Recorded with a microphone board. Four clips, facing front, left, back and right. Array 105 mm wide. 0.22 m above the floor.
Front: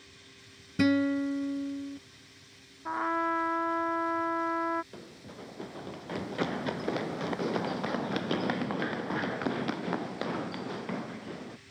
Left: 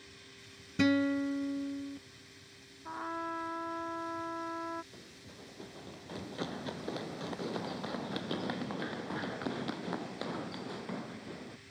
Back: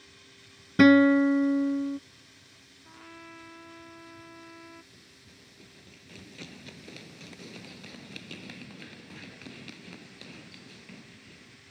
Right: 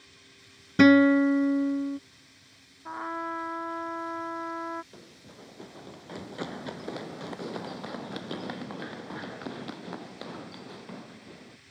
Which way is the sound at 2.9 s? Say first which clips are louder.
Right 4 dB, front 20 dB; 15° right.